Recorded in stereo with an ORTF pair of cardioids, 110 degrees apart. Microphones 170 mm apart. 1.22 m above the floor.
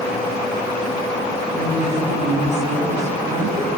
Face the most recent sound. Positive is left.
turn(degrees=-45)